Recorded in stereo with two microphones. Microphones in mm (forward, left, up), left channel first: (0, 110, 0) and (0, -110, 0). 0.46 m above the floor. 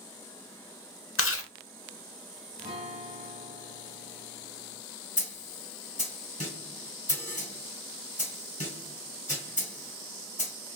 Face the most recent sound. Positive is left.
turn(degrees=35)  # may be behind; listen again after turning